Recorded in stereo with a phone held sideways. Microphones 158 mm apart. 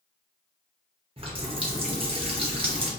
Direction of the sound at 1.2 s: 35° right (ahead or behind).